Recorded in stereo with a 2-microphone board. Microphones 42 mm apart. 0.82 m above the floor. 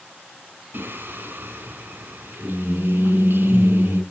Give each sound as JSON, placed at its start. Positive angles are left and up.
{"t": 0.7, "sound": "singing", "side_deg": -60, "distance_m": 2.0}